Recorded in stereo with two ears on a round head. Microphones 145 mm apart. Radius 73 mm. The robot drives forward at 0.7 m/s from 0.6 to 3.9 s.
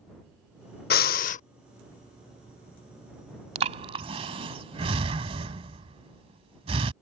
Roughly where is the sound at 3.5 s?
Right.